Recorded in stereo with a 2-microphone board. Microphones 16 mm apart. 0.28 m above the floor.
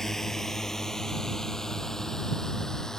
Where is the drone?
15° left (ahead or behind); by 3.0 s 30° left (ahead or behind).